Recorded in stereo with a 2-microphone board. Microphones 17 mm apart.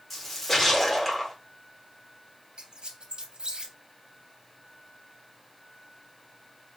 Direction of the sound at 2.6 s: 60° right (ahead or behind).